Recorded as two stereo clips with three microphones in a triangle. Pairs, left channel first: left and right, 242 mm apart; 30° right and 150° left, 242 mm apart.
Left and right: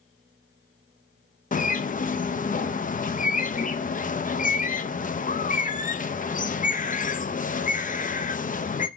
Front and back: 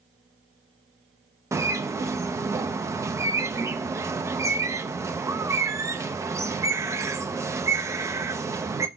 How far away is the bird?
About 0.6 m.